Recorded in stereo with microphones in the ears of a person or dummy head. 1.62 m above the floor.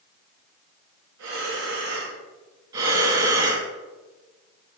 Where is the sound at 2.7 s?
25° right (ahead or behind), 1.9 m.